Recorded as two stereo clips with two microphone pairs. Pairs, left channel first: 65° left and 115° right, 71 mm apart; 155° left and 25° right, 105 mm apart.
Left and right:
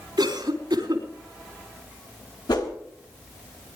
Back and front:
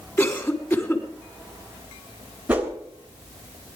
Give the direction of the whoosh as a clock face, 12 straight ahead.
10 o'clock.